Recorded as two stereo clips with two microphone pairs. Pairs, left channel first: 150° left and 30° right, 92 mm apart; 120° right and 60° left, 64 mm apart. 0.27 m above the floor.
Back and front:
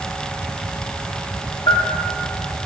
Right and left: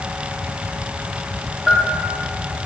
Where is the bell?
135° left, 3.5 m.